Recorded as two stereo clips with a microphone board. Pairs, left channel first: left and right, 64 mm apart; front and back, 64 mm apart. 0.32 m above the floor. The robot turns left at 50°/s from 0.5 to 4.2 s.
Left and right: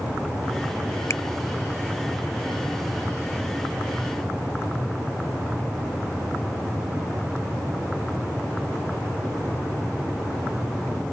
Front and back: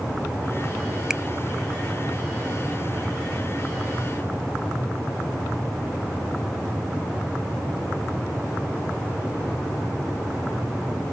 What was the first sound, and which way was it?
A finger snap, 105° left.